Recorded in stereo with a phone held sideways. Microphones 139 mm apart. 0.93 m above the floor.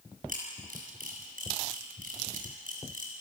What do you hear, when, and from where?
0.3 s a camera shutter: 80° right, 7.5 m